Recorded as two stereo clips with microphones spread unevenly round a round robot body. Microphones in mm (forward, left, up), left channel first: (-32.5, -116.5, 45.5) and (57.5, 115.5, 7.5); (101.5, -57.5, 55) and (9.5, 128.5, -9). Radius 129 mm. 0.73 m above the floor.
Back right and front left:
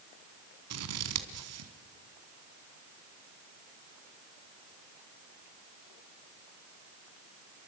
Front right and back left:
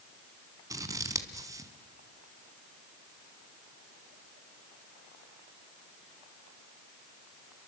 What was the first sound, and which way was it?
Scissors, 40° left.